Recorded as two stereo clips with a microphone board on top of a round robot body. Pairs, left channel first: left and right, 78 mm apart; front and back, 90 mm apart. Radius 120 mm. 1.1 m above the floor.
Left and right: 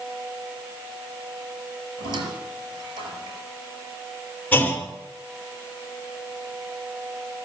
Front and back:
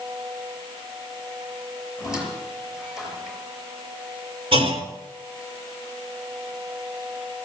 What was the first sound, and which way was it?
A squeak, 100° right.